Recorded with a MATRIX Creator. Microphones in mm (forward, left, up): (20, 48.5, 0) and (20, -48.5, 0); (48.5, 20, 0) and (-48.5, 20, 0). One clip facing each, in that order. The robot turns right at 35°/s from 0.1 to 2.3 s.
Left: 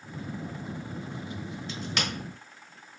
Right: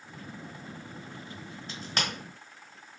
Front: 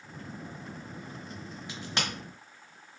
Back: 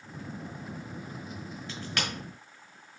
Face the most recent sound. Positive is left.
turn(degrees=-45)